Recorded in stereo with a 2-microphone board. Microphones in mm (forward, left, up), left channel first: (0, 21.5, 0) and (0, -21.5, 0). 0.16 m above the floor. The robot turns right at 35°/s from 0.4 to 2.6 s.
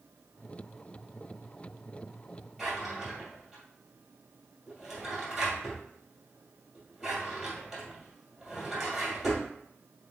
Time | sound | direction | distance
2.6 | a drawer | 5° right (ahead or behind) | 2 m